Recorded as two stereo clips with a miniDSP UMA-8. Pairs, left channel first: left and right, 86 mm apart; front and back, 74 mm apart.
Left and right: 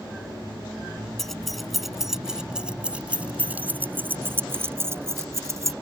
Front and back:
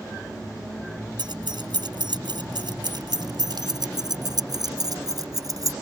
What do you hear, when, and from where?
1.2 s keys jangling: 175° left; by 5.7 s 145° right